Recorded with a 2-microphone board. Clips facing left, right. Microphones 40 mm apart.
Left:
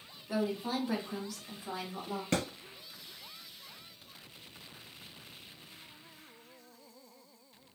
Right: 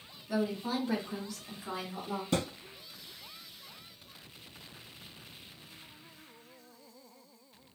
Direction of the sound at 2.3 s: 50° left (ahead or behind).